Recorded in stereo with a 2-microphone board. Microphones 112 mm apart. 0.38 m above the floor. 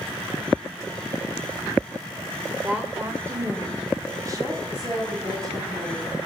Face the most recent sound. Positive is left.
turn(degrees=-40)  # may be behind; listen again after turning